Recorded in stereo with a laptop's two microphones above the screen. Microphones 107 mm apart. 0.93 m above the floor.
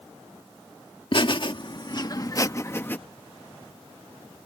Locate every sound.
1.1 s laughter: 50° left (ahead or behind); by 3.0 s 15° left (ahead or behind)